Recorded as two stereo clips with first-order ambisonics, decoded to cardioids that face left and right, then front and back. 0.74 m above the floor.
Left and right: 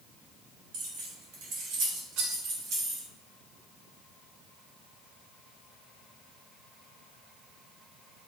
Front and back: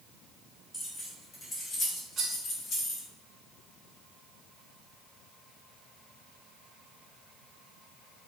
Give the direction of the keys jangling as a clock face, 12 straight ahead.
3 o'clock.